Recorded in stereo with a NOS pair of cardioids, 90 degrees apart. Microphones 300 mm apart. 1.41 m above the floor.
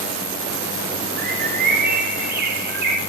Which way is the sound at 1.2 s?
30° right.